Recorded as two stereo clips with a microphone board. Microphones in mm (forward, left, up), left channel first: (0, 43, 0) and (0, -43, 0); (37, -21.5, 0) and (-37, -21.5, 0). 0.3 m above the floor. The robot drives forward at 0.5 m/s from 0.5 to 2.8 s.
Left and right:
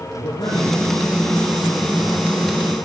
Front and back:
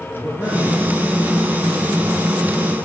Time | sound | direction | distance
0.1 | a man speaking | 120° left | 7 m